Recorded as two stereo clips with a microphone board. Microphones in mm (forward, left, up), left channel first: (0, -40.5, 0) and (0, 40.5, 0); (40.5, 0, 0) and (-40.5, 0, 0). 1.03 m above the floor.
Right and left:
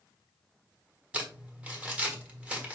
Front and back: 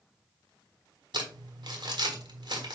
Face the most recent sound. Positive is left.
turn(degrees=165)